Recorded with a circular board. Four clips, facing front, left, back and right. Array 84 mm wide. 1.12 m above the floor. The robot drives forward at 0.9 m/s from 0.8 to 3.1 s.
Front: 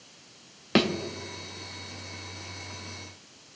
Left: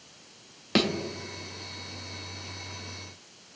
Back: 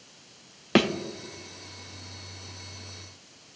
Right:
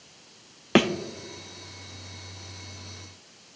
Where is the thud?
110° right, 0.5 m; by 0.9 s 130° right, 0.5 m.